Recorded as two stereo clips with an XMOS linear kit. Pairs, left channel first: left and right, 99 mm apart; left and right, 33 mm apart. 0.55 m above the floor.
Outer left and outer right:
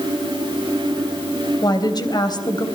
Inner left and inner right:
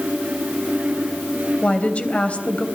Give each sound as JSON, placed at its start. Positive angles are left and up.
{"t": 1.6, "sound": "a woman speaking", "side_deg": 45, "distance_m": 3.5}